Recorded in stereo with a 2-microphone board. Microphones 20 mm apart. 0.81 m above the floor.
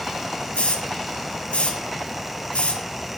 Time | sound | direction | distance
0.5 | a hiss | 85° left | 5.5 m